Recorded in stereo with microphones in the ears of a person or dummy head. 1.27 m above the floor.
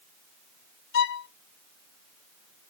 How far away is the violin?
About 0.6 m.